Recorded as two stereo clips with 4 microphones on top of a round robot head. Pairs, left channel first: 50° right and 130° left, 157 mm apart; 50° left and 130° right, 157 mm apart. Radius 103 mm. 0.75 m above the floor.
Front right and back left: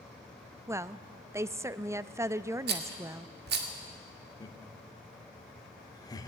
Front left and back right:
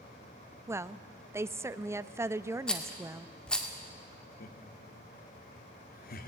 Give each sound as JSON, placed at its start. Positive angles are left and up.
{"t": 0.7, "sound": "a woman speaking", "azimuth_deg": 180, "distance_m": 0.6}
{"t": 2.7, "sound": "a rattle", "azimuth_deg": 135, "distance_m": 2.0}
{"t": 4.4, "sound": "laughter", "azimuth_deg": 20, "distance_m": 1.6}